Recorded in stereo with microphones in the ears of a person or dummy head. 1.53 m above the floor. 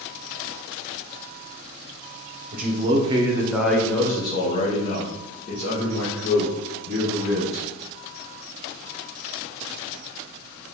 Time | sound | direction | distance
2.5 | a man speaking | 50° right (ahead or behind) | 0.8 m